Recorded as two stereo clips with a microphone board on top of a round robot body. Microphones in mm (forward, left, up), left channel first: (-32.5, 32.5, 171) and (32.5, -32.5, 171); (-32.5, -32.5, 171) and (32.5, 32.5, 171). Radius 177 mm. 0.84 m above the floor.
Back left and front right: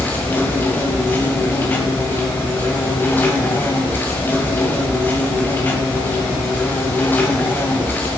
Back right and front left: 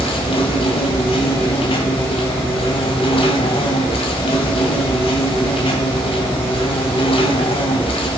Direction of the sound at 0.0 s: 155° right.